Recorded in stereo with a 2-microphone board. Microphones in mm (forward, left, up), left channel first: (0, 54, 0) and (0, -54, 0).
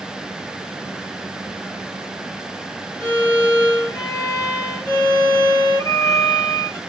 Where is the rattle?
I don't hear a rattle.